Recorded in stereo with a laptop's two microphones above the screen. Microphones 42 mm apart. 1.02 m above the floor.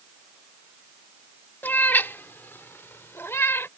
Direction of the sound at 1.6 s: 50° left (ahead or behind).